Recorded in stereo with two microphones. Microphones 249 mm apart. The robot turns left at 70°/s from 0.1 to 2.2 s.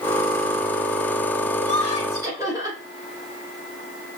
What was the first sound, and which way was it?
Laughter, 120° right.